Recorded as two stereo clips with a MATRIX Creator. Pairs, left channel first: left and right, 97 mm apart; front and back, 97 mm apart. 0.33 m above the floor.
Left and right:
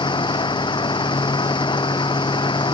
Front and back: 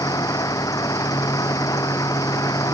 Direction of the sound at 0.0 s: 55° left.